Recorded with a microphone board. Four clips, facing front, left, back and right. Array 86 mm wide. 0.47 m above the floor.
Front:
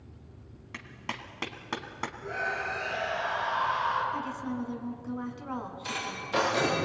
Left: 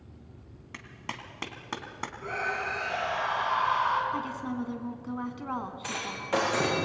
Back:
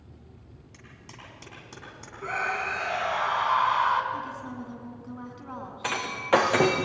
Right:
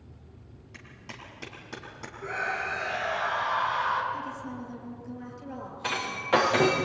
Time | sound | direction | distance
0.7 | a clap | 40° left | 3 m
2.2 | a scream | 175° left | 5.5 m
4.1 | a woman speaking | 85° left | 4 m
5.8 | breaking glass | 165° right | 4.5 m